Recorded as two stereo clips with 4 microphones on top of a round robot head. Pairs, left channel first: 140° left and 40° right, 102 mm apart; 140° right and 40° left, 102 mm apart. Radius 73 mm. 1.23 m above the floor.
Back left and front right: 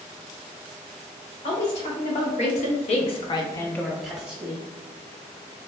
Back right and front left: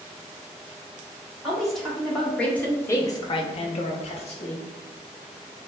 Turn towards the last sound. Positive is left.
turn(degrees=-110)